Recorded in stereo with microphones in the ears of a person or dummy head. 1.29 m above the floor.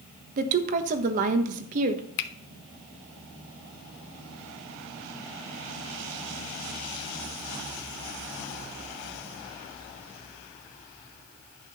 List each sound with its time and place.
0.4 s a woman speaking: 50° right (ahead or behind), 1.3 m
2.2 s a finger snap: 55° left (ahead or behind), 0.7 m